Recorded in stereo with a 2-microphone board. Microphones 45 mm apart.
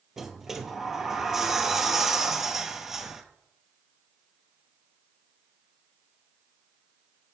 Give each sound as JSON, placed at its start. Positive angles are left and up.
{"t": 0.2, "sound": "a sliding door", "side_deg": -10, "distance_m": 0.7}